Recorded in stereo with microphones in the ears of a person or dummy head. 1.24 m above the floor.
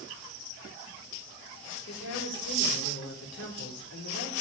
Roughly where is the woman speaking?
Left.